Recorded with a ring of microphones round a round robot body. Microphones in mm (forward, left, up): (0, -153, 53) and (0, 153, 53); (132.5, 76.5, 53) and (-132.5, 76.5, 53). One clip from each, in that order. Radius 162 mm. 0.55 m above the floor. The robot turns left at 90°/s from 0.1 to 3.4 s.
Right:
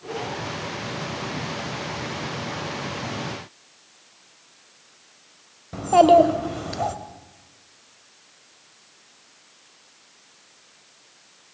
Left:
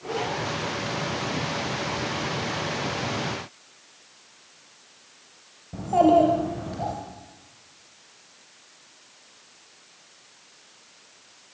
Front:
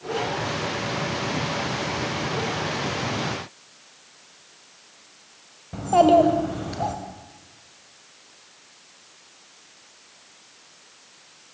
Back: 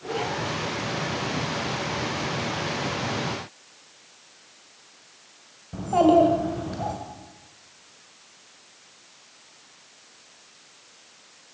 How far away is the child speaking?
About 2 m.